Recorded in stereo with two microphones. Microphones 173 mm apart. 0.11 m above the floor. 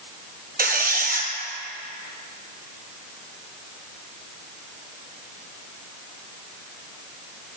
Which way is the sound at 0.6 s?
65° right (ahead or behind).